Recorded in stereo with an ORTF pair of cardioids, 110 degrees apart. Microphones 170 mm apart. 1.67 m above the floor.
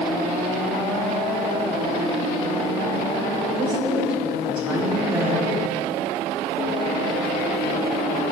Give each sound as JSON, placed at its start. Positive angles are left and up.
{"t": 3.6, "sound": "a woman speaking", "azimuth_deg": -10, "distance_m": 5.0}